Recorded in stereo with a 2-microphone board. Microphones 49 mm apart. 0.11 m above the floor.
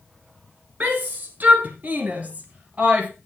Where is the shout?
35° right (ahead or behind), 1.7 m; by 3.1 s 30° right (ahead or behind), 2.5 m.